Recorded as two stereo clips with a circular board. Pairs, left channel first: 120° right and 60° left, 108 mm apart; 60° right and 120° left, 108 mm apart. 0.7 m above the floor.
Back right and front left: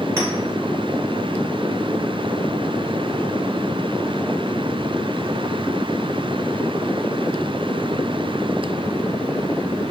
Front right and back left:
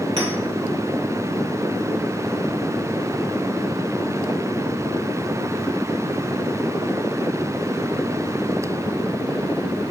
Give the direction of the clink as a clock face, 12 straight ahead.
8 o'clock.